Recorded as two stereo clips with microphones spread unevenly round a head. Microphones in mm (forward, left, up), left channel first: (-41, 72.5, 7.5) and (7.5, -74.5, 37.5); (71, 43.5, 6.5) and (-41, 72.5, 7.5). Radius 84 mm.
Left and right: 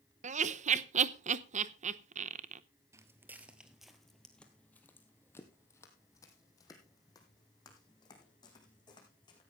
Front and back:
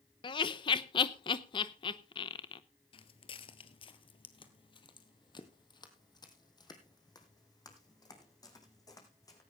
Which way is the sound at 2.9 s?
20° right.